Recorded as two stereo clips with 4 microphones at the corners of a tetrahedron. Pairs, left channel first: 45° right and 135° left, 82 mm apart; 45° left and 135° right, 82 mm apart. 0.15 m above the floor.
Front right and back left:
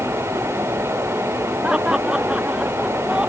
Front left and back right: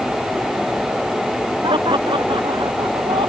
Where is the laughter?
145° right.